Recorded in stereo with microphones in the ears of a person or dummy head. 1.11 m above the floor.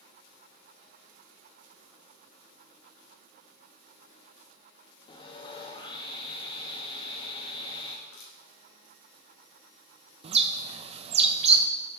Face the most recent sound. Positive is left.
turn(degrees=-30)  # may be behind; listen again after turning